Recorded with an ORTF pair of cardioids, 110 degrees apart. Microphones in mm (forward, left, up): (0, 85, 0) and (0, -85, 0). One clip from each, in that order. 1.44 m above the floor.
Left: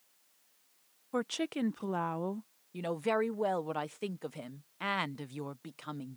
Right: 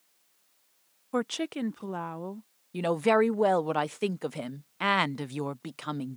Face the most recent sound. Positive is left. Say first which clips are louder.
# right 8 dB
turn(degrees=-35)